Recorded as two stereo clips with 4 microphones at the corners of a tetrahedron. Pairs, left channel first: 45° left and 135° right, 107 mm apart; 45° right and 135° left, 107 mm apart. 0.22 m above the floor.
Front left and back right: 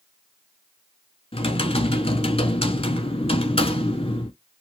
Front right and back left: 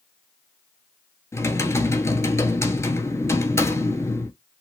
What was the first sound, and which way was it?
Typing on a keyboard, 15° left.